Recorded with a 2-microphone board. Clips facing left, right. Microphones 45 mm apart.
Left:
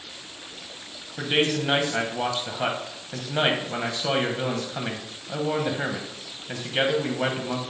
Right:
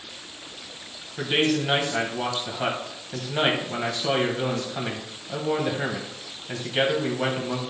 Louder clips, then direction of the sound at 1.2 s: Right 1 dB; 10° left (ahead or behind).